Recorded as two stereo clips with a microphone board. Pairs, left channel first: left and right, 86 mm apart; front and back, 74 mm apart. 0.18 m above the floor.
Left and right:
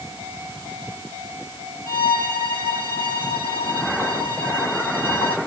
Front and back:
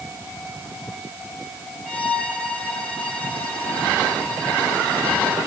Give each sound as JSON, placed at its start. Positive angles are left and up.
{"t": 1.9, "sound": "a violin", "azimuth_deg": -75, "distance_m": 5.0}